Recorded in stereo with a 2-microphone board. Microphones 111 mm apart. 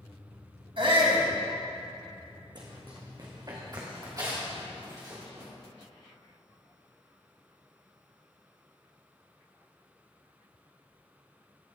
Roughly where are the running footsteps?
Right.